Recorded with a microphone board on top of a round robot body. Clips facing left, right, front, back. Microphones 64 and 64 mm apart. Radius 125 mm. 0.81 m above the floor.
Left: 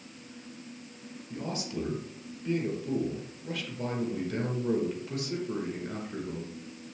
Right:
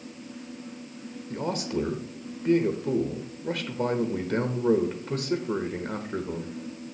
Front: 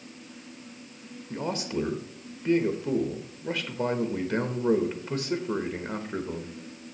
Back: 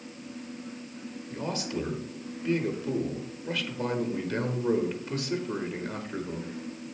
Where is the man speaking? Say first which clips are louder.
Right 6 dB, front 3 dB; 55° right, 1.3 m.